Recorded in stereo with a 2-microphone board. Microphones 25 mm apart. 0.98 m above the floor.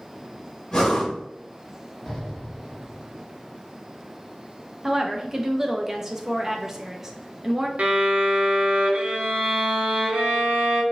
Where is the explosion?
5° left (ahead or behind), 1.9 m.